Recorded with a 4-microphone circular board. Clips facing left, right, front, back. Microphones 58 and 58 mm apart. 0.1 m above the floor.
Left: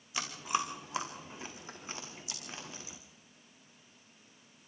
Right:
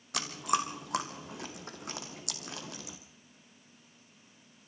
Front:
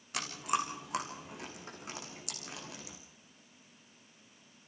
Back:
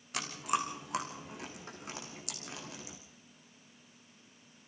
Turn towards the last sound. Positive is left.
turn(degrees=-90)